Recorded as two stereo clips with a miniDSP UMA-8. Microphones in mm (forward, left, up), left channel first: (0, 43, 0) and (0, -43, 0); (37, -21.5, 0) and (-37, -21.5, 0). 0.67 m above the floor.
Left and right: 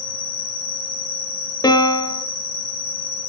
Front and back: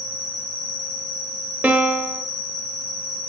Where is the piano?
120° left, 0.5 m.